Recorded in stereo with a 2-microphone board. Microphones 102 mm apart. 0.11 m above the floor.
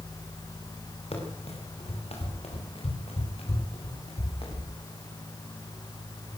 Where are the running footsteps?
80° left, 8 m; by 4.7 s 70° left (ahead or behind), 9.5 m.